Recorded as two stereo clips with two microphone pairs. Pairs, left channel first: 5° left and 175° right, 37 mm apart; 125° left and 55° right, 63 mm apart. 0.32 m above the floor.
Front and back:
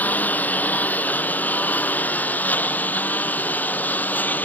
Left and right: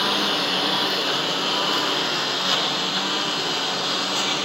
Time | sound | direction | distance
0.0 | a lawn mower | 35° left | ?